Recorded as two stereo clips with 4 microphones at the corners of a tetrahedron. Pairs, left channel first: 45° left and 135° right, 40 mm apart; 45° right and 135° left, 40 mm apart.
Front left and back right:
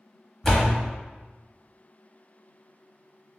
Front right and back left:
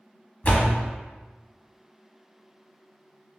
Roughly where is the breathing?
I don't hear breathing.